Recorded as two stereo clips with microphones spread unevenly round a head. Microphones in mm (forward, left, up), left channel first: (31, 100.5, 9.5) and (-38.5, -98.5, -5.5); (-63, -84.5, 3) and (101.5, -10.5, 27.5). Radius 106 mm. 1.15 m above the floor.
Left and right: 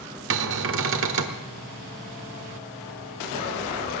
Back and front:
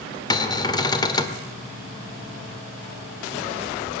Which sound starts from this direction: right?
A cupboard door, at 0.3 s.